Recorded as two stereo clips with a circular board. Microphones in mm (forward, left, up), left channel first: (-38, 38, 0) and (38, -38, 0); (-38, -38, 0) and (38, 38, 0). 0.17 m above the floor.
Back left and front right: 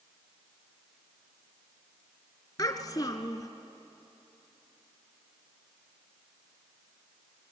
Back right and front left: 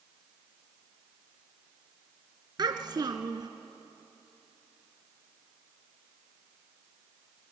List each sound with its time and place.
2.6 s a child speaking: 95° left, 1.6 m